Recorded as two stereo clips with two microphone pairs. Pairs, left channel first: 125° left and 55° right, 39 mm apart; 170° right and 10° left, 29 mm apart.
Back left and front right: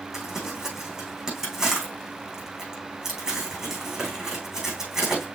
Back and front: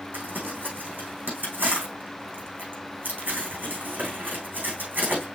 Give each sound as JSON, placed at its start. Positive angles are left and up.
{"t": 0.1, "sound": "crumpling", "azimuth_deg": 20, "distance_m": 5.0}